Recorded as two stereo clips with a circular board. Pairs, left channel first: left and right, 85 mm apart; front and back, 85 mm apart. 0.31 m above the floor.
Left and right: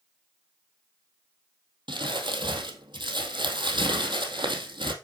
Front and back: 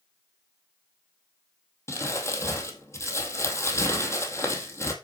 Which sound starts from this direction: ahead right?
Crumpling, at 1.9 s.